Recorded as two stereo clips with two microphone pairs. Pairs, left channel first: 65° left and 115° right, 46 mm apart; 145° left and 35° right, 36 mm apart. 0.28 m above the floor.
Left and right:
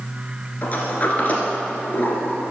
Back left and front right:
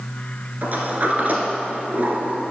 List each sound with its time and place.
0.6 s a sliding door: 10° left, 1.5 m